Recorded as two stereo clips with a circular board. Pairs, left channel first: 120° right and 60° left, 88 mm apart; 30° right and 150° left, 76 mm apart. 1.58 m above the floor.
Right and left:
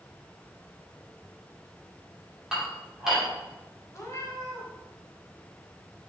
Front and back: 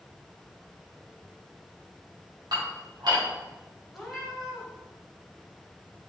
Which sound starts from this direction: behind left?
Dishes clattering, at 2.5 s.